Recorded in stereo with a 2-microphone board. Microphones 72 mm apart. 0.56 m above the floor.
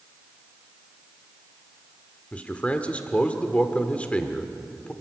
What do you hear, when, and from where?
2.3 s a man speaking: 15° left (ahead or behind), 1.3 m